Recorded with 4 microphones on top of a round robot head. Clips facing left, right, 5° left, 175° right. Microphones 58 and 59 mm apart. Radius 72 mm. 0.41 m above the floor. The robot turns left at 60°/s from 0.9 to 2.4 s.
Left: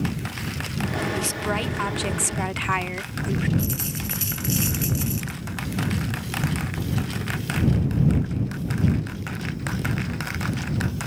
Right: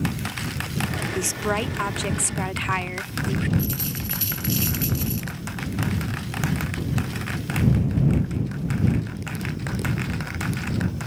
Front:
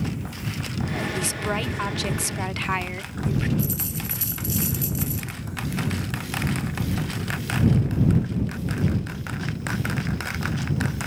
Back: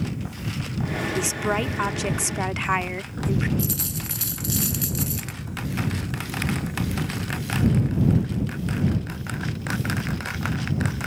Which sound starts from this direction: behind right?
A woman speaking, at 1.1 s.